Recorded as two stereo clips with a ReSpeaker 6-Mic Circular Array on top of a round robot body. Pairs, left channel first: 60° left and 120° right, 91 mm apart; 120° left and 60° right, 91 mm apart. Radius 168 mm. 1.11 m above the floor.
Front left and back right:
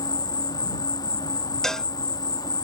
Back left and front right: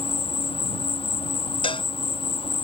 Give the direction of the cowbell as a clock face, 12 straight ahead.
7 o'clock.